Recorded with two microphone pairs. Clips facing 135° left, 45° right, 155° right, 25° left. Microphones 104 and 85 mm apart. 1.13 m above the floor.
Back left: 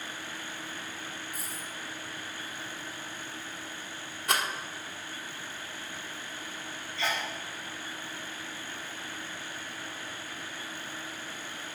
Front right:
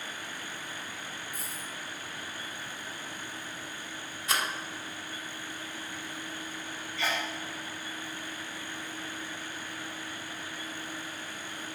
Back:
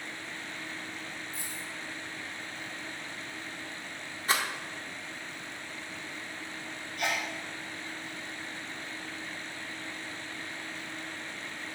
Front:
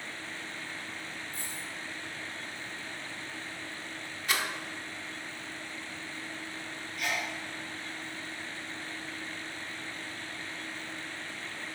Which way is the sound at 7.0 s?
155° right.